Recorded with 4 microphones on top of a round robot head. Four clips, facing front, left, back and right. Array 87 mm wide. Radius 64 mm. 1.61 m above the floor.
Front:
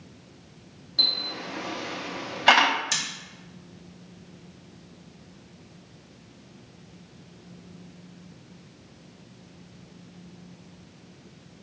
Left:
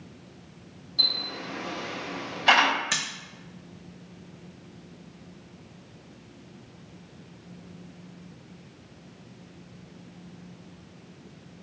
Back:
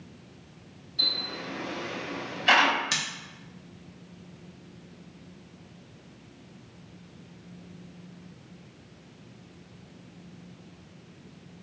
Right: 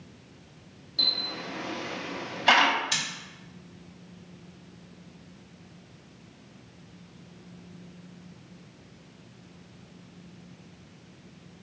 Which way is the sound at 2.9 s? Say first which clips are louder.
Left 2 dB, back 1 dB; 120° left.